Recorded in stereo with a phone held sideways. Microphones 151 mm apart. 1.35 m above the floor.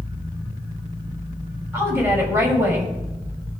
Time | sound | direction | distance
1.7 | a woman speaking | 20° right (ahead or behind) | 6.5 m